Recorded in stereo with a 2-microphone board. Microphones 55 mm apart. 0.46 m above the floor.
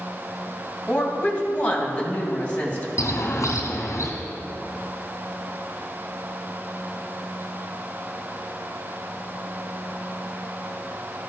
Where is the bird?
65° left (ahead or behind), 2.5 m.